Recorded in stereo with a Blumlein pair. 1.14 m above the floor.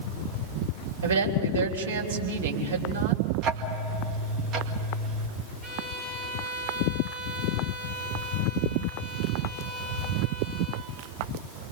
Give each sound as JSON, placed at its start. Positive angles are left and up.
{"t": 1.0, "sound": "a woman speaking", "azimuth_deg": -65, "distance_m": 3.5}
{"t": 3.4, "sound": "ticking", "azimuth_deg": -30, "distance_m": 2.0}
{"t": 5.6, "sound": "a violin", "azimuth_deg": -20, "distance_m": 3.5}